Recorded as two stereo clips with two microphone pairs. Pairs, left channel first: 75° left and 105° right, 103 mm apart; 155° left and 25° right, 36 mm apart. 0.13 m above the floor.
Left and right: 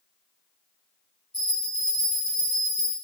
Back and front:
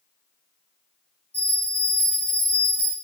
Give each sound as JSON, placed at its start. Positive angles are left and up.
{"t": 1.3, "sound": "a bell", "azimuth_deg": 180, "distance_m": 1.7}